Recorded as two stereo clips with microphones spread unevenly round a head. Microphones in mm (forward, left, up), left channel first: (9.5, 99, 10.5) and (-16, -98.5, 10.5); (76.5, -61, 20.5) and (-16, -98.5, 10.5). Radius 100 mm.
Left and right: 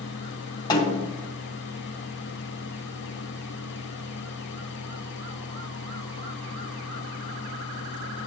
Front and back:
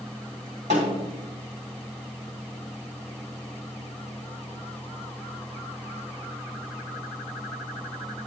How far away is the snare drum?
About 2.5 m.